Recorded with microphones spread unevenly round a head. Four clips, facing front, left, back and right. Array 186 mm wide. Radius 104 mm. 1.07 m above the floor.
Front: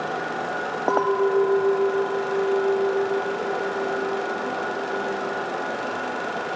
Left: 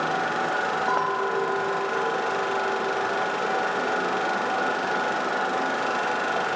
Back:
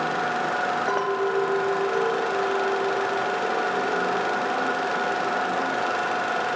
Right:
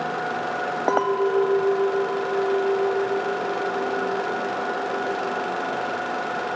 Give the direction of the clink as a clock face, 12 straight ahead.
2 o'clock.